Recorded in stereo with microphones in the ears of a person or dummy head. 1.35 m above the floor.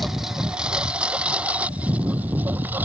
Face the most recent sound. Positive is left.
turn(degrees=-15)  # may be behind; listen again after turning